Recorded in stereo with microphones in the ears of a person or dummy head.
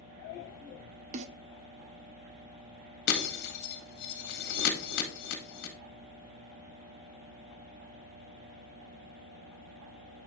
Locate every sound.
1.1 s a snare drum: 45° right (ahead or behind), 0.8 m
3.1 s breaking glass: 60° left (ahead or behind), 1.7 m